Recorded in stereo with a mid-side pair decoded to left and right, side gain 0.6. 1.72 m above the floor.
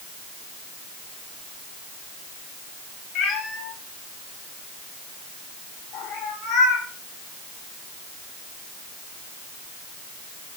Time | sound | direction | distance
3.1 | a cat meowing | 70° left | 5.5 m